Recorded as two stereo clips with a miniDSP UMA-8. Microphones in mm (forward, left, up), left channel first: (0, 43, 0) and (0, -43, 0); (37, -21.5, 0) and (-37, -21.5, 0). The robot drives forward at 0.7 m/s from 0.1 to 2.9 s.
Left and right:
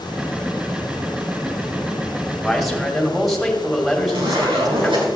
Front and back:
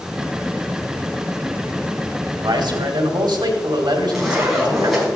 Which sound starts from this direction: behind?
A man speaking, at 2.4 s.